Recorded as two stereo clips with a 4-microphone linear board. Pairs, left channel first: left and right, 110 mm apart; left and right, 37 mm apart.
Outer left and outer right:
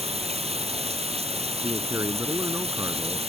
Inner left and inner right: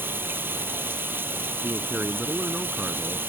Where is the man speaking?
25° right (ahead or behind).